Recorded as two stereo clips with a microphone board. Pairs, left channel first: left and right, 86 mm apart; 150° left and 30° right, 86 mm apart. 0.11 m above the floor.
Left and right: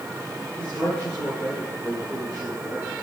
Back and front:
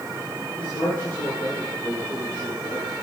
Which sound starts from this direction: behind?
A man speaking, at 0.6 s.